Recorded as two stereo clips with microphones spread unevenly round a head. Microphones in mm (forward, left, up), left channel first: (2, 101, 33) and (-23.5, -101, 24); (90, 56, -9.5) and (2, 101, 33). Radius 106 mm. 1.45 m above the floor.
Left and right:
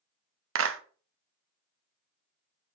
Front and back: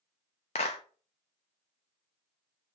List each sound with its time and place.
0.6 s a clap: 85° right, 0.6 m